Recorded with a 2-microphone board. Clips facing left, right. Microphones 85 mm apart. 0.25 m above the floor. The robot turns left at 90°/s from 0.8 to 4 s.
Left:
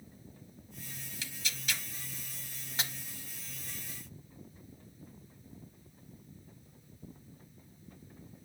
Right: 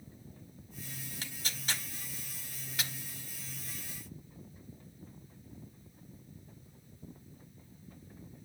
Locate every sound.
1.2 s tearing paper: 40° right (ahead or behind), 0.8 m; by 2.9 s 35° left (ahead or behind), 0.8 m